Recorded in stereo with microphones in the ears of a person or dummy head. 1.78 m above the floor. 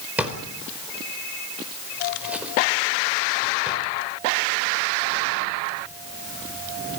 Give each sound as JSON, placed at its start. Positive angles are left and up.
{"t": 0.2, "sound": "a drawer", "side_deg": -5, "distance_m": 4.5}